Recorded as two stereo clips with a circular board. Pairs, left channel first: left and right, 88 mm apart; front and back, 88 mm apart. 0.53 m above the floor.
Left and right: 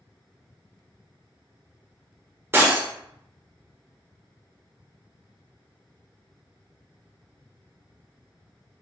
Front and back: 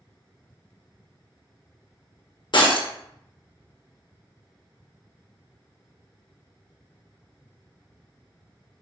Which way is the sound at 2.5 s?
25° right.